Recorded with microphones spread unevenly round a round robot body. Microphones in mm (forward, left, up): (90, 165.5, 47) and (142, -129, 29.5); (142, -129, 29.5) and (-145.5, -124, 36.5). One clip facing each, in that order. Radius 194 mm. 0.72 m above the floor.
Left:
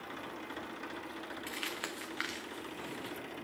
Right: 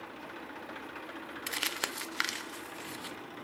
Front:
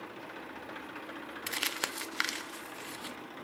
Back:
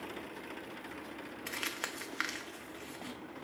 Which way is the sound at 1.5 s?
45° right.